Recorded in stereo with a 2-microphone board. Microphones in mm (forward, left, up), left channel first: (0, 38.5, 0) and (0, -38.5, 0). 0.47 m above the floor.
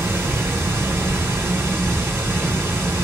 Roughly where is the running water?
Right.